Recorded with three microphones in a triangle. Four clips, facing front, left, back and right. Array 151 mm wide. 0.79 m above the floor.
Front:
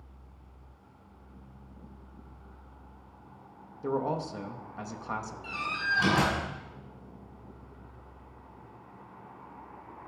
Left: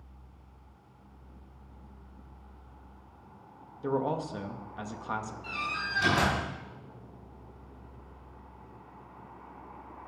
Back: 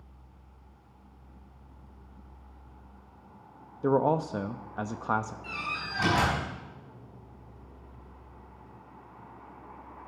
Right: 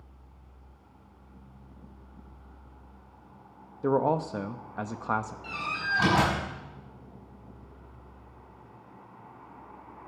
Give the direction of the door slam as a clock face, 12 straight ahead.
3 o'clock.